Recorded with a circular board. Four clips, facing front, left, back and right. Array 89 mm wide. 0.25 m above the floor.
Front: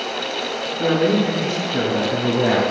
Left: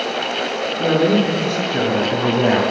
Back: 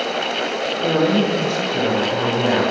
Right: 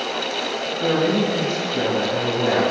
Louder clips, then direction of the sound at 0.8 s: Left 4 dB, even; 60° left.